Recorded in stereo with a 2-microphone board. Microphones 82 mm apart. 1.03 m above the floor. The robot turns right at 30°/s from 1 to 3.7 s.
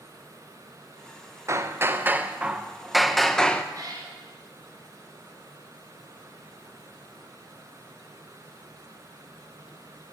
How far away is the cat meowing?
About 3 m.